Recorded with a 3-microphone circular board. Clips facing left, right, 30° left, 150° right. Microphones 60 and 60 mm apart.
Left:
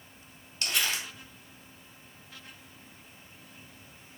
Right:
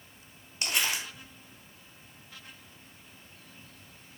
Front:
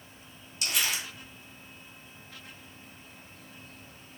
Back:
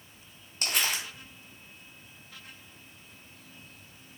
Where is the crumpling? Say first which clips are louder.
Even, back 1 dB; 155° right, 1.5 m.